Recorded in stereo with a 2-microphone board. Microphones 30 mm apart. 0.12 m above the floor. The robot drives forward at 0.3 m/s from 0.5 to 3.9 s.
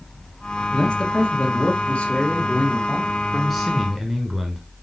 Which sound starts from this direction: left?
A man speaking, at 0.7 s.